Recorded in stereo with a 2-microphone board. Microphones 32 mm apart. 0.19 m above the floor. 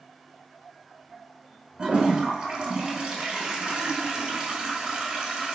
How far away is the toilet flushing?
About 0.7 m.